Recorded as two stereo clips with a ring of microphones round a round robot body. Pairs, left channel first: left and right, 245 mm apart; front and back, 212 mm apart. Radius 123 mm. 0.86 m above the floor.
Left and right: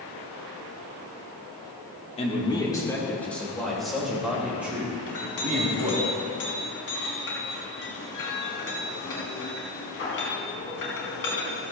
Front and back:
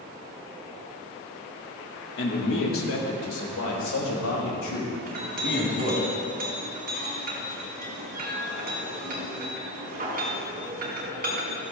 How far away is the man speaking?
About 2.5 m.